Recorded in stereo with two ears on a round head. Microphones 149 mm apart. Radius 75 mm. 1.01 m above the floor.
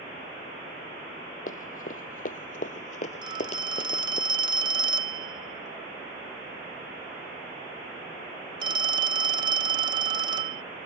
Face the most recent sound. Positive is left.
turn(degrees=-25)  # may be behind; listen again after turning